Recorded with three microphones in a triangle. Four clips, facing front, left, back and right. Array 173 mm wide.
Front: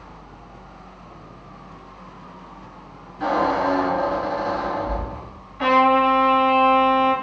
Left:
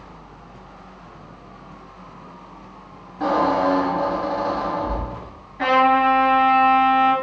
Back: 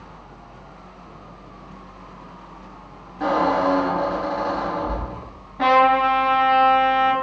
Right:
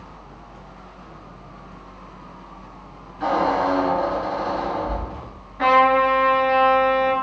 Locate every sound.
3.2 s a squeak: 120° left, 1.7 m
5.6 s a trumpet: 175° left, 1.3 m